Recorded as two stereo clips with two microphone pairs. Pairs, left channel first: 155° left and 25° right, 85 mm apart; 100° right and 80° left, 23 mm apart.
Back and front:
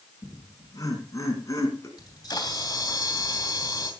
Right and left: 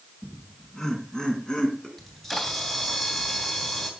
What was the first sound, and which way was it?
Laughter, 160° right.